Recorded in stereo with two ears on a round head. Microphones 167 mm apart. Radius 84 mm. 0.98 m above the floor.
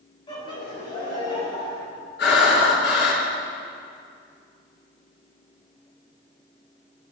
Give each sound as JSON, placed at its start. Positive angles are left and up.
{"t": 0.3, "sound": "laughter", "side_deg": 25, "distance_m": 5.5}
{"t": 2.2, "sound": "breathing", "side_deg": 65, "distance_m": 4.0}